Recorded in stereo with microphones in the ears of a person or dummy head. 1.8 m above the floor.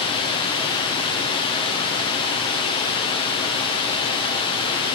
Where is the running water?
25° left (ahead or behind), 0.8 m.